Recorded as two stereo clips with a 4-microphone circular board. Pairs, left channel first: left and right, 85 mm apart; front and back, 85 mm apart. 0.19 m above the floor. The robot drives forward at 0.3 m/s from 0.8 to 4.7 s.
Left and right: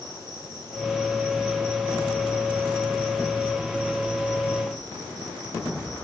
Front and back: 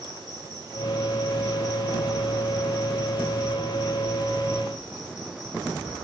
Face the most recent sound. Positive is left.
turn(degrees=150)